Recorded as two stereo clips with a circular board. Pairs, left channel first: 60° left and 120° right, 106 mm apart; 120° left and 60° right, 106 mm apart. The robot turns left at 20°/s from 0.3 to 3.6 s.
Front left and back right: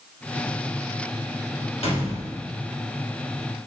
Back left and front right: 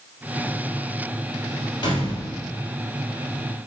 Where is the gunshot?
75° left, 3 m; by 2.5 s 65° left, 3 m.